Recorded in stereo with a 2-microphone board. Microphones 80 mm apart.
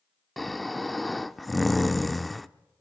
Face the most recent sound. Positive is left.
turn(degrees=0)  # may be behind; listen again after turning